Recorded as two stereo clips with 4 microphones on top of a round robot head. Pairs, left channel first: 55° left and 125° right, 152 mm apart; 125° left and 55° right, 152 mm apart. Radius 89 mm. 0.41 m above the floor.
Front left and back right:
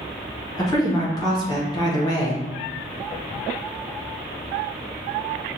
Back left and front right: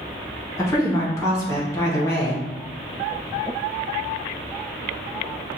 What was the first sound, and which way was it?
A woman speaking, 75° left.